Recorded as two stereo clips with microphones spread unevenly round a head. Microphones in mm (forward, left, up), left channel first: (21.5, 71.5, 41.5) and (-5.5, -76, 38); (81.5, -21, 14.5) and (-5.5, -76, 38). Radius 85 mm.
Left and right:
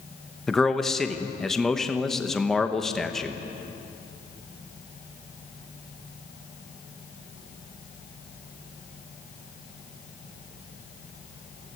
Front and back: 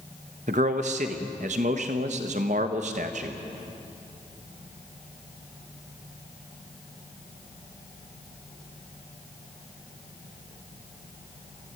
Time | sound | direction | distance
0.5 | a man speaking | 165° left | 1.2 m